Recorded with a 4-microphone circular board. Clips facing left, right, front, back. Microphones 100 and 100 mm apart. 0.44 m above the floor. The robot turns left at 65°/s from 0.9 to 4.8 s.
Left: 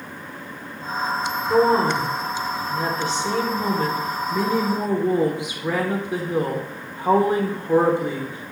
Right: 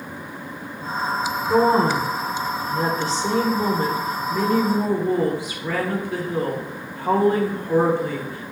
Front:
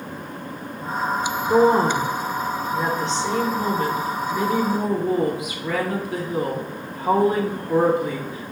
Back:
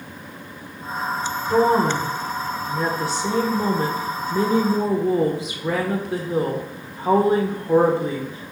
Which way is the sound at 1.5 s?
Straight ahead.